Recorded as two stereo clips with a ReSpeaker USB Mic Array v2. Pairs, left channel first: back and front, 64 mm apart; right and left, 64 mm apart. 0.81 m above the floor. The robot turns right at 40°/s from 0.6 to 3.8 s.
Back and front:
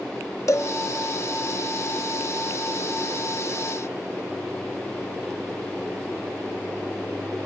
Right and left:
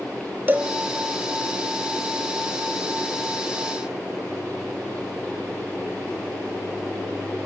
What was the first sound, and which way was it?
A cowbell, 150° left.